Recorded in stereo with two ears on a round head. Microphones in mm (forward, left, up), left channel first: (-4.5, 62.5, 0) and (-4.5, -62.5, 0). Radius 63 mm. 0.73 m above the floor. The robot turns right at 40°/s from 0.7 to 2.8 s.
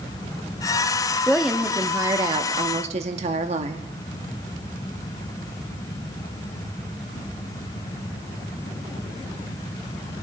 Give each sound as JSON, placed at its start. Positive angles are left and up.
{"t": 1.3, "sound": "a woman speaking", "azimuth_deg": 175, "distance_m": 0.9}